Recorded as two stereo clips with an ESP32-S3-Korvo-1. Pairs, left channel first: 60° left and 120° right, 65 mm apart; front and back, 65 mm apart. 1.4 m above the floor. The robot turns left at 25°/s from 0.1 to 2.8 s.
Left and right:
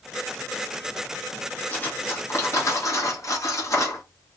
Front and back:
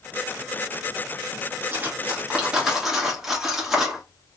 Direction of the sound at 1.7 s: 125° left.